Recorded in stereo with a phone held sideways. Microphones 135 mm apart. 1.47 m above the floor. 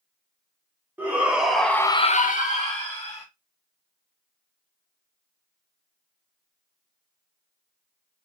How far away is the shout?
About 1.6 m.